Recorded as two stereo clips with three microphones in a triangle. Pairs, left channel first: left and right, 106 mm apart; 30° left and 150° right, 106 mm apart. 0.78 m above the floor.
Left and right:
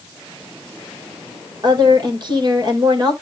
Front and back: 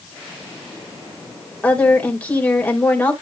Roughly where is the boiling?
I don't hear boiling.